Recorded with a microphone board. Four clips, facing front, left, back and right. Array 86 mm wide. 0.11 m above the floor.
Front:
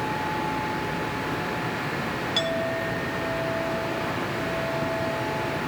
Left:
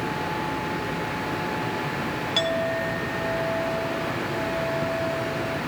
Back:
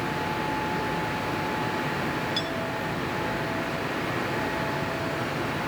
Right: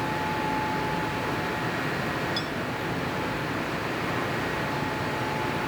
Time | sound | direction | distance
2.4 | a clink | 60° left | ?